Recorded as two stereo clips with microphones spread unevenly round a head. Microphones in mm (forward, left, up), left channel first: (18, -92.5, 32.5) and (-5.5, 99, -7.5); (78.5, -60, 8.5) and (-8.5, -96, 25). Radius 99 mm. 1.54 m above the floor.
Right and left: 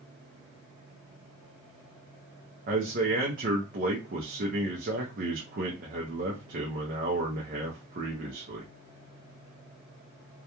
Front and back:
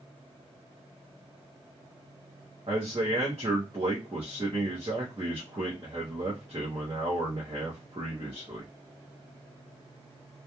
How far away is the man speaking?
About 0.5 m.